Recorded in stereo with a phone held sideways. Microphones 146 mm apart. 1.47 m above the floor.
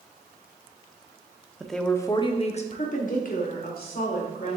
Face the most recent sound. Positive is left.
turn(degrees=80)